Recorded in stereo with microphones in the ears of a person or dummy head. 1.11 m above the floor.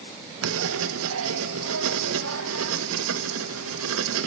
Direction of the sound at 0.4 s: 80° right.